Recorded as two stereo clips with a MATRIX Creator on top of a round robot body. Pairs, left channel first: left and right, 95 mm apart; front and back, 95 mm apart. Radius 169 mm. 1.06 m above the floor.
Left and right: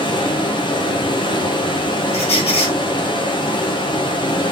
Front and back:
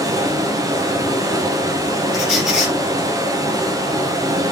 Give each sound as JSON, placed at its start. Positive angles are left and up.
{"t": 0.0, "sound": "running water", "azimuth_deg": 125, "distance_m": 0.9}
{"t": 2.1, "sound": "a squeak", "azimuth_deg": 90, "distance_m": 2.5}